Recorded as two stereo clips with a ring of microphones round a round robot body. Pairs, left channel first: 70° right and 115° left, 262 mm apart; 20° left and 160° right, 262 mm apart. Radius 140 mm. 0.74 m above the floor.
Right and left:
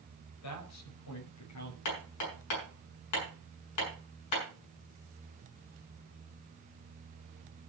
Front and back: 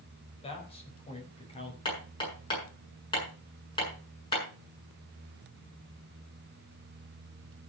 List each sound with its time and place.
0.4 s a man speaking: 45° right, 4.5 m
1.9 s hammering: 50° right, 7.5 m